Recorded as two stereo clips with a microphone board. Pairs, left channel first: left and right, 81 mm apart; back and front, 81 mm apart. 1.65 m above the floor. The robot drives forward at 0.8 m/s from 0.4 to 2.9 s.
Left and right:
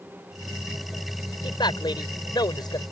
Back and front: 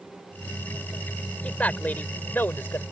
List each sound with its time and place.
1.4 s a man speaking: 105° left; by 2.8 s 115° left